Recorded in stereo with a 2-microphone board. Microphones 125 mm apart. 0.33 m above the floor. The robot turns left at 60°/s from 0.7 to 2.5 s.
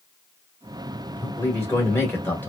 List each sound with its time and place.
1.2 s a man speaking: 15° left (ahead or behind), 1.1 m